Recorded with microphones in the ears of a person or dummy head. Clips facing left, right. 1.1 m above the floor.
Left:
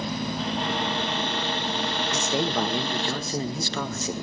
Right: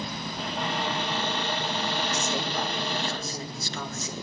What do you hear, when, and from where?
0.4 s a cupboard door: 5° right (ahead or behind), 8.5 m
2.1 s a man speaking: 55° left (ahead or behind), 1.3 m